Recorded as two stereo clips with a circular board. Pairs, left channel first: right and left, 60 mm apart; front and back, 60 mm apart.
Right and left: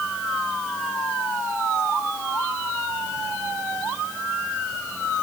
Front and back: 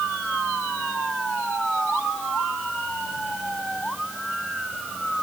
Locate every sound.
Only background noise.